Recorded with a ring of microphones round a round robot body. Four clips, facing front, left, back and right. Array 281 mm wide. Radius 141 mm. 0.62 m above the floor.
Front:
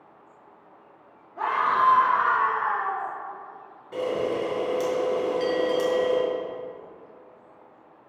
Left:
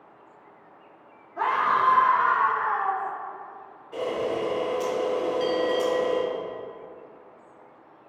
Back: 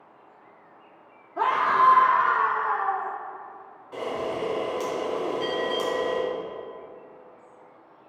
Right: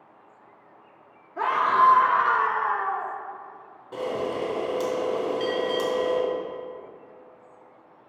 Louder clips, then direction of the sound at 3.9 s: Left 1 dB, front 3 dB; 65° right.